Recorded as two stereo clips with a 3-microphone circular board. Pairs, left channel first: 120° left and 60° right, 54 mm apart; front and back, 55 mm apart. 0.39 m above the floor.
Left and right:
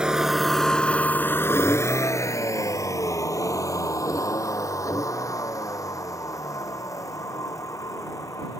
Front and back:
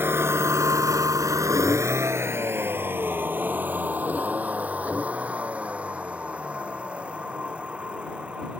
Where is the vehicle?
135° right; by 8.6 s 110° left.